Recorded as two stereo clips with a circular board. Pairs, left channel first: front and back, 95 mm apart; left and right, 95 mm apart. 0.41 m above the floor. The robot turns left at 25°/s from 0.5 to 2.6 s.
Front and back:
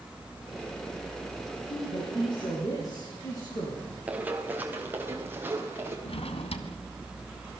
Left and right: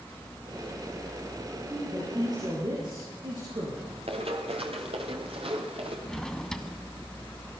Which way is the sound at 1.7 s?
25° right.